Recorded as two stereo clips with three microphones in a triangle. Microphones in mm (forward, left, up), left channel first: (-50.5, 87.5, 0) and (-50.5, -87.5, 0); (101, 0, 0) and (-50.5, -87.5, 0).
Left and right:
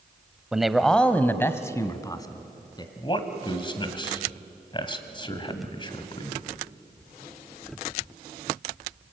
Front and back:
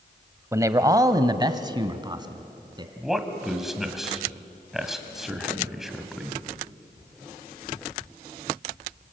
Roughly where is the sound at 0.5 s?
Behind.